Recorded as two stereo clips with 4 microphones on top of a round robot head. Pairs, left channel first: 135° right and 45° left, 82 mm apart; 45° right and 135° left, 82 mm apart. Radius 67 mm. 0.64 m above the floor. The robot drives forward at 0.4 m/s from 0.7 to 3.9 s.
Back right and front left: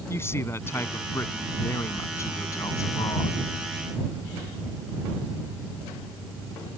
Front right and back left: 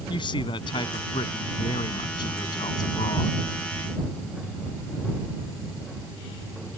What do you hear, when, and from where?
0.1 s a man speaking: 75° right; by 3.4 s 85° right